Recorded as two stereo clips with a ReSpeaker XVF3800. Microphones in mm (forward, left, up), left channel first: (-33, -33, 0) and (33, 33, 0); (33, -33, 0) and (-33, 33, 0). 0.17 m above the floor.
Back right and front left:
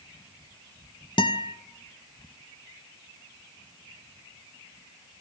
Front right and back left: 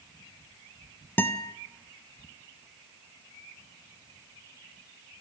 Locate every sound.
1.2 s a guitar: 110° right, 0.9 m